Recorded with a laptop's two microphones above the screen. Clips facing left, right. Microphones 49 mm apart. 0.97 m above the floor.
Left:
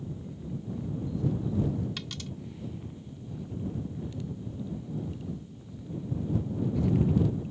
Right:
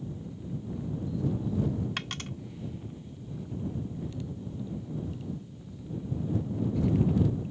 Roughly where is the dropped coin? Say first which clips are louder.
Right 3 dB; right.